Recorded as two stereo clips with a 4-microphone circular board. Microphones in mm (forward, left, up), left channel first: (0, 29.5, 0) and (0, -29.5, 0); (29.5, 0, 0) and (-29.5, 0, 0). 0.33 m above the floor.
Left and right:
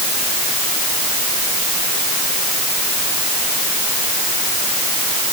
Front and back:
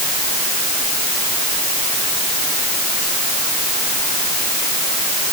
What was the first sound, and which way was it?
Only background noise.